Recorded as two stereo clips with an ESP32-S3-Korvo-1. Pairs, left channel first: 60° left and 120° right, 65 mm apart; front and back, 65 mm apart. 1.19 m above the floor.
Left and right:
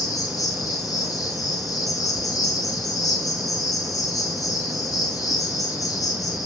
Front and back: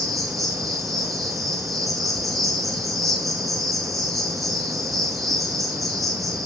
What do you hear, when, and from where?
0.0 s an insect: 90° left, 5 m